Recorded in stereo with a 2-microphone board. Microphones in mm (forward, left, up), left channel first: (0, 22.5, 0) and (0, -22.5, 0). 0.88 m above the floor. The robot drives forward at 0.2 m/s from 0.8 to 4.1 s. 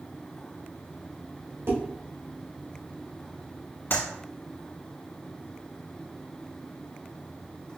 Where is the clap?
55° left (ahead or behind), 1.4 m.